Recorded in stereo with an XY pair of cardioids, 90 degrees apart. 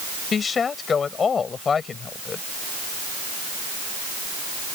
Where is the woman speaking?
50° left.